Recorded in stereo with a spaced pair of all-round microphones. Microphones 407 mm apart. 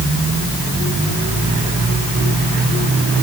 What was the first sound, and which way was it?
Only background noise.